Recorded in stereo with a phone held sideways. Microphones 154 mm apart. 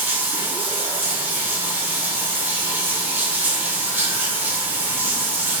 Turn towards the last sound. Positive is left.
turn(degrees=-15)  # may be behind; listen again after turning